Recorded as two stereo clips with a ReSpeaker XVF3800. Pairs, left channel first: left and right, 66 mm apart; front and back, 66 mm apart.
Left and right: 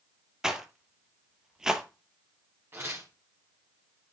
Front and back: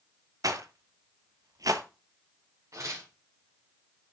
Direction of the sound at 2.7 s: 145° right.